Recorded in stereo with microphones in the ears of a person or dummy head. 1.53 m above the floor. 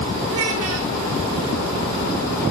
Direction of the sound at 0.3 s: 75° right (ahead or behind).